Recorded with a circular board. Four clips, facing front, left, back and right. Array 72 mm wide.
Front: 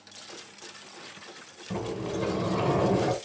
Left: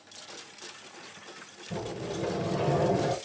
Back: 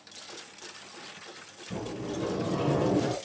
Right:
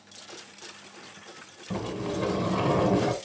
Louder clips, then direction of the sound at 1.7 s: Right 4 dB, front 3 dB; 60° right.